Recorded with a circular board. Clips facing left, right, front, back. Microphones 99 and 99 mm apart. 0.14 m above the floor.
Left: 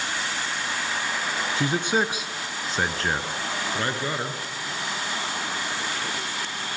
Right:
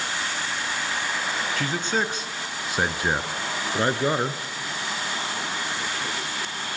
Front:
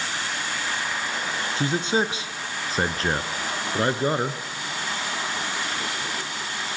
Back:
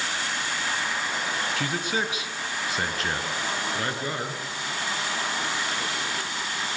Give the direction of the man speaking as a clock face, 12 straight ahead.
11 o'clock.